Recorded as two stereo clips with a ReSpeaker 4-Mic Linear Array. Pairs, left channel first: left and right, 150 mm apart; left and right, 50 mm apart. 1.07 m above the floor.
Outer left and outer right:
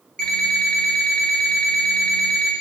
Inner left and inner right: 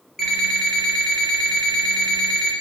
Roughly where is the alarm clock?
Centre.